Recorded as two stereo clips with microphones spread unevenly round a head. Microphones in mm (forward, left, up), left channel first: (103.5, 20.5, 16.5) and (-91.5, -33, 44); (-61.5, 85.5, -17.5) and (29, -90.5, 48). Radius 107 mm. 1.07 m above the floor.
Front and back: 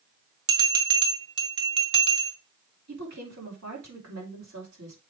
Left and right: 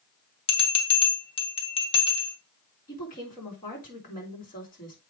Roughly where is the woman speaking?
Behind.